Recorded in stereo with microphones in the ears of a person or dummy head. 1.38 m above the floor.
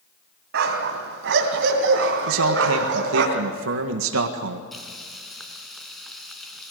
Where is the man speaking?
75° right (ahead or behind), 1.7 m.